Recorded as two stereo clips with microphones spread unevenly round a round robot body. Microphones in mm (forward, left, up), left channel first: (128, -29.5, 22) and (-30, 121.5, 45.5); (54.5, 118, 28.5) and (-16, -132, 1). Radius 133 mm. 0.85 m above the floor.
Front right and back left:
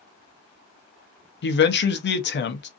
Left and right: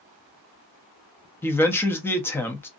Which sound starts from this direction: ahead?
A man speaking, at 1.4 s.